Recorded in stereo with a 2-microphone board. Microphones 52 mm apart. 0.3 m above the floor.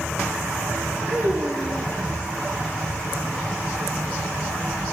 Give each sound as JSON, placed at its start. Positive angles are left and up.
{"t": 1.1, "sound": "a child speaking", "side_deg": -50, "distance_m": 7.5}